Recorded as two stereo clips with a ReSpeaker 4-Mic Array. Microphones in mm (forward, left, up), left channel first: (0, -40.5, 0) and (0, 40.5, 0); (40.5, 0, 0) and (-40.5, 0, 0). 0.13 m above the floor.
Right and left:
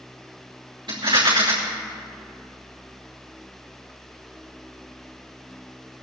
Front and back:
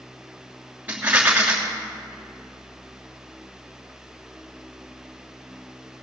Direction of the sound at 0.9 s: 110° left.